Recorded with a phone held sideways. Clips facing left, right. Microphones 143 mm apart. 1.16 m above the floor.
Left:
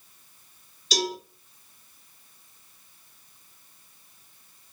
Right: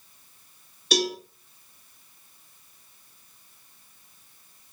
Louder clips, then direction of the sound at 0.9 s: Right 3 dB; 60° right (ahead or behind).